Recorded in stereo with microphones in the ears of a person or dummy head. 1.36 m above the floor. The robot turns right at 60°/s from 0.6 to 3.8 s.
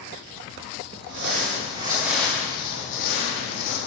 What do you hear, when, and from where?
1.0 s crumpling: 70° right, 0.7 m; by 3.8 s 95° left, 0.7 m